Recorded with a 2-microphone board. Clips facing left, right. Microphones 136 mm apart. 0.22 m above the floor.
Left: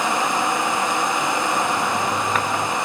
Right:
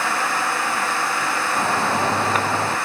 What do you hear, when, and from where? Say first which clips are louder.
1.6 s a shout: right 1 dB; 25° right (ahead or behind); by 2.8 s 30° right (ahead or behind)